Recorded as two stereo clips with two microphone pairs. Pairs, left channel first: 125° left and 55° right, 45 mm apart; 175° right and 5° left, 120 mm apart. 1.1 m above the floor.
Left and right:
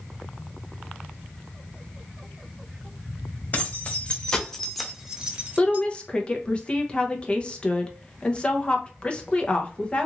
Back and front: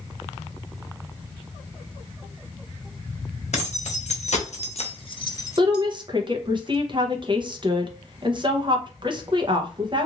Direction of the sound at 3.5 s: 170° left.